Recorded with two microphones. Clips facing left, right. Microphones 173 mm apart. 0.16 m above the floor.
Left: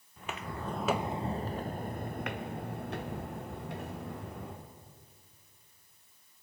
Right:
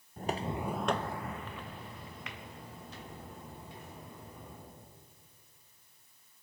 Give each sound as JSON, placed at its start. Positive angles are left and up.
{"t": 0.2, "sound": "footsteps", "side_deg": -45, "distance_m": 0.7}